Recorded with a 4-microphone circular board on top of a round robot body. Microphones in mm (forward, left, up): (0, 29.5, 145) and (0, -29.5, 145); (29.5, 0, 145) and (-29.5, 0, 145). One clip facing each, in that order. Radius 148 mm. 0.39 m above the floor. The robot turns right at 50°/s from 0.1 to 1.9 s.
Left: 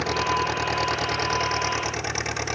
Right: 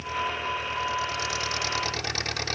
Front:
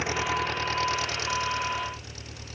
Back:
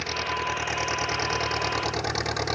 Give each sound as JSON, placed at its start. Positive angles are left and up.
{"t": 0.0, "sound": "an engine running", "azimuth_deg": 75}